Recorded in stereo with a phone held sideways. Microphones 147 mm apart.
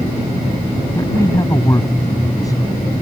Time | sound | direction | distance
0.9 | a man speaking | 20° left (ahead or behind) | ?